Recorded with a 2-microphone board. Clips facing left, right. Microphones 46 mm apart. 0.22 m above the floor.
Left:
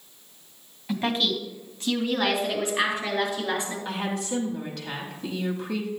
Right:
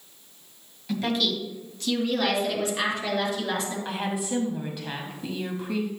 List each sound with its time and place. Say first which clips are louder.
0.9 s a woman speaking: left 1 dB; 20° left (ahead or behind), 1.6 m; by 3.8 s 15° left (ahead or behind), 4.5 m
3.9 s a woman speaking: even; 10° right (ahead or behind), 1.0 m